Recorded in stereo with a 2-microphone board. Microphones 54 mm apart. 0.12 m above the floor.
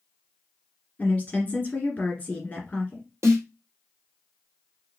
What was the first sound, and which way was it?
A woman speaking, 30° left (ahead or behind).